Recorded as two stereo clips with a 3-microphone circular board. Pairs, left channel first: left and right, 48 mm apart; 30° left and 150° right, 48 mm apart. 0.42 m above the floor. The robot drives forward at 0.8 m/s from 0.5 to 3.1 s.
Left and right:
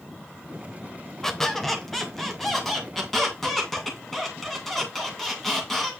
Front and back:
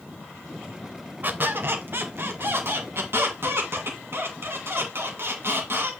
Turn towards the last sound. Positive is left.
turn(degrees=175)